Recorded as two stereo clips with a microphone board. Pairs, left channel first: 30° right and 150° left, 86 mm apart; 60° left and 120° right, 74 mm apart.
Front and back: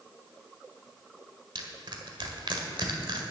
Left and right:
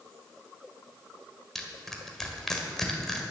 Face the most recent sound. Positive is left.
turn(degrees=145)